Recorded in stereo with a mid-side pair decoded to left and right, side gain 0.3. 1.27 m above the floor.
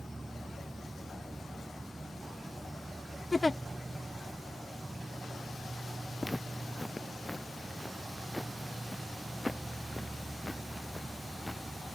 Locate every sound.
0.0 s an insect: 25° right
3.3 s a giggle: 25° left
6.2 s footsteps: 5° left